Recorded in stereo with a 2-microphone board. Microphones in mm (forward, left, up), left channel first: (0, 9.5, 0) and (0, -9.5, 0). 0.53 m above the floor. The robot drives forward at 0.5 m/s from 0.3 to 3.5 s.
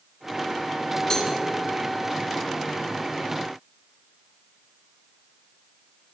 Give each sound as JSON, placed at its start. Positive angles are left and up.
{"t": 1.1, "sound": "a cowbell", "side_deg": 35, "distance_m": 5.5}